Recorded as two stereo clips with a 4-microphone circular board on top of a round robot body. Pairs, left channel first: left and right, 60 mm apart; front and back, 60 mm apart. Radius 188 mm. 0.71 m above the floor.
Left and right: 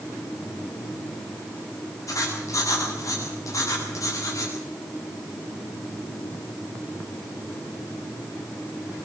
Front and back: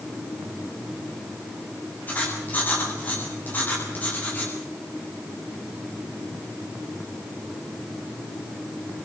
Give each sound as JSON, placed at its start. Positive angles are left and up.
{"t": 2.1, "sound": "writing", "azimuth_deg": 60, "distance_m": 8.0}